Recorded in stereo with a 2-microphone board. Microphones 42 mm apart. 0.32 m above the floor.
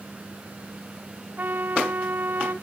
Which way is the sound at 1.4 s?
50° right (ahead or behind).